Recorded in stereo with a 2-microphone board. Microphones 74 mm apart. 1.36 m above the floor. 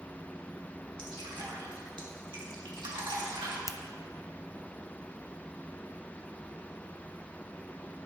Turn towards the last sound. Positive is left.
turn(degrees=45)  # may be behind; listen again after turning